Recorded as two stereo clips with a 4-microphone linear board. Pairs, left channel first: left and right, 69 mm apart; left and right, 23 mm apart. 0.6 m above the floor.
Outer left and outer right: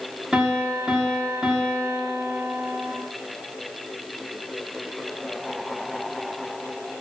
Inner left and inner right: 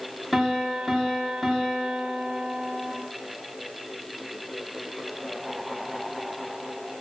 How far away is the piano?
About 1.4 m.